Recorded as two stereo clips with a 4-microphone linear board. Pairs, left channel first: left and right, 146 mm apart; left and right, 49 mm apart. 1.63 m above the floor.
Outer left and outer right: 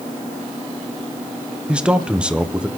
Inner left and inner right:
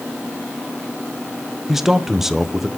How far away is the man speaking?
About 1.1 m.